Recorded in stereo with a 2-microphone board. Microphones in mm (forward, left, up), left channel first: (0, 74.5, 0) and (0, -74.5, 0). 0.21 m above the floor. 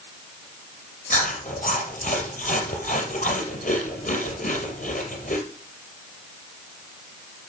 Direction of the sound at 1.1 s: 65° left (ahead or behind).